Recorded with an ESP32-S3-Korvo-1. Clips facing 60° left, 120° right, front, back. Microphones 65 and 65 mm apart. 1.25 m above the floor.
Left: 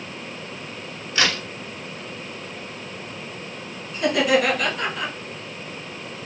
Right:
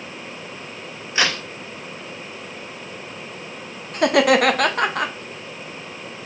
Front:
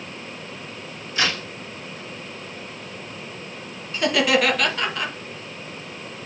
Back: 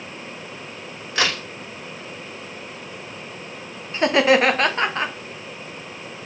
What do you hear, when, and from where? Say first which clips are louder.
1.1 s a crack: right 1 dB, back 1 dB; 170° left, 2.0 m
3.9 s laughter: right 4 dB, back 3 dB; 125° right, 0.8 m